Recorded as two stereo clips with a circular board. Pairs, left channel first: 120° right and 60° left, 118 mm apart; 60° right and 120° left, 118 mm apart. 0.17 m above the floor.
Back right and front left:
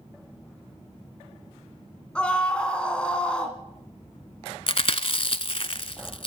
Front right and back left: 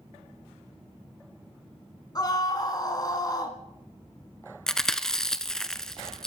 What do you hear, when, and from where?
2.1 s a scream: 45° right, 1.8 m
4.7 s chewing: 145° right, 0.8 m